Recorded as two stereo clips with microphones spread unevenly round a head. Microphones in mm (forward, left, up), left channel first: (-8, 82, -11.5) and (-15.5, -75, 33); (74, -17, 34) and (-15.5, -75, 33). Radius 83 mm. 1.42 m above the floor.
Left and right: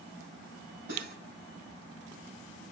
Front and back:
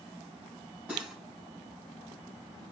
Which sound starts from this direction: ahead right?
Cutlery clinking, at 0.9 s.